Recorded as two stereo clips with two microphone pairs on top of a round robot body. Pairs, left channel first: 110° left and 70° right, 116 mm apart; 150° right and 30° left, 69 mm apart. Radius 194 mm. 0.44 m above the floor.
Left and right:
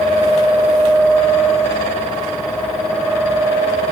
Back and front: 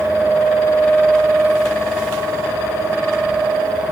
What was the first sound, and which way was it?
Only background noise.